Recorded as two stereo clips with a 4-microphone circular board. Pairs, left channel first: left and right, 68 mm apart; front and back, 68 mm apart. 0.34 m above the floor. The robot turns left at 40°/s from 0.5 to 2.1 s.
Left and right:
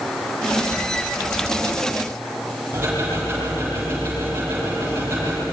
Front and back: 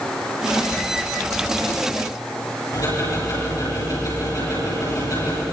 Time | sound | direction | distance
2.7 | ticking | 35° right | 9.5 m